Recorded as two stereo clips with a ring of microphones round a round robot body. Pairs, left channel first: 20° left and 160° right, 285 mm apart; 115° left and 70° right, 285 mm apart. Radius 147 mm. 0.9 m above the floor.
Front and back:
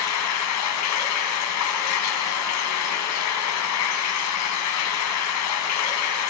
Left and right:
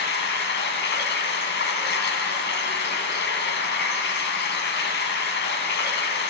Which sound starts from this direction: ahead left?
Running water, at 0.0 s.